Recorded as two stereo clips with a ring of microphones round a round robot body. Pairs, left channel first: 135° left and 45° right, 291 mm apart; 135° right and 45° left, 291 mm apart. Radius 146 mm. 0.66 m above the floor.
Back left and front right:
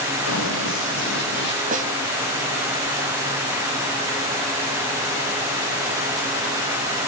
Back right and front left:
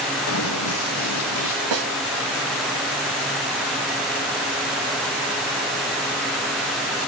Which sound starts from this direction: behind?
Running footsteps, at 0.3 s.